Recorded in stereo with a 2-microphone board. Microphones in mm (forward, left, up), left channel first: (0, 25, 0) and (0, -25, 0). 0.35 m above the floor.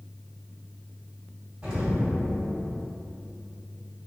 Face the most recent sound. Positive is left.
turn(degrees=-20)  # may be behind; listen again after turning